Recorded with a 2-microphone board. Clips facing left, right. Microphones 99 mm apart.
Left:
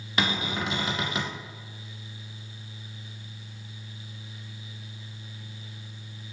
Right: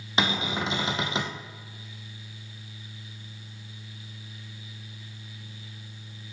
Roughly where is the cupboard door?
Right.